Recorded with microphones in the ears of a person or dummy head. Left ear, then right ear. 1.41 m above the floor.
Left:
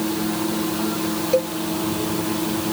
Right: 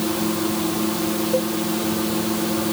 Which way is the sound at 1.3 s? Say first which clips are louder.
Left 4 dB; 65° left (ahead or behind).